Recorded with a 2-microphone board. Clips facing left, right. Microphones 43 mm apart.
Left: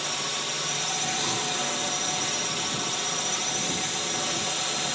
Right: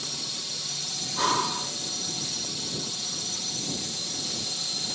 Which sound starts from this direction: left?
A drone, at 0.0 s.